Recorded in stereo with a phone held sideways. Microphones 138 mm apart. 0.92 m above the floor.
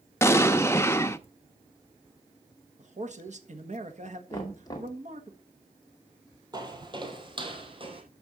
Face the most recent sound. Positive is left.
turn(degrees=-40)  # may be behind; listen again after turning